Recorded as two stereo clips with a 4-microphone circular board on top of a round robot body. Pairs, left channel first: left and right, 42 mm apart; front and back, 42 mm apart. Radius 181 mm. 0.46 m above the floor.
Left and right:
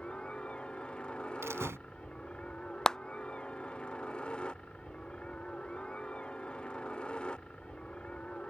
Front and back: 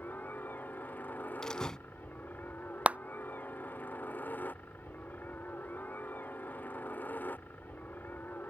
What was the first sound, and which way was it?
A helicopter, 30° left.